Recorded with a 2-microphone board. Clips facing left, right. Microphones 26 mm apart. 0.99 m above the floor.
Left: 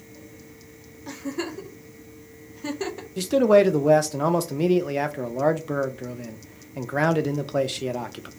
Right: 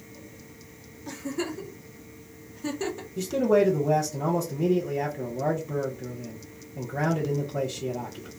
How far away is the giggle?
About 0.6 m.